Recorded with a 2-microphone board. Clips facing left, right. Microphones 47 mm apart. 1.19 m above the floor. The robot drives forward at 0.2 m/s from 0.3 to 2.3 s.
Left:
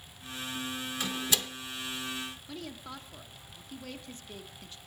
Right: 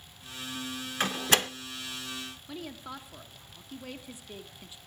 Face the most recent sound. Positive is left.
turn(degrees=-10)  # may be behind; listen again after turning